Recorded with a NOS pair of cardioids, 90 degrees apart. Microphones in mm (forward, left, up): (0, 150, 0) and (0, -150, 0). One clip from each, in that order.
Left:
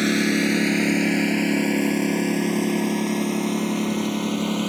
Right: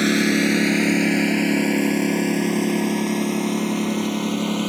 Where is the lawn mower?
15° right; by 4.7 s 10° right.